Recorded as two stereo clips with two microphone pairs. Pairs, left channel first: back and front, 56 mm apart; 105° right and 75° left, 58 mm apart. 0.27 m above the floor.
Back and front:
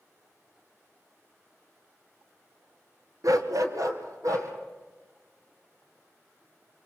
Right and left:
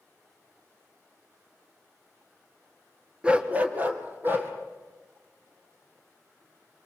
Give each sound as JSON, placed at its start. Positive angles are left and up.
{"t": 3.2, "sound": "a dog barking", "azimuth_deg": 0, "distance_m": 1.2}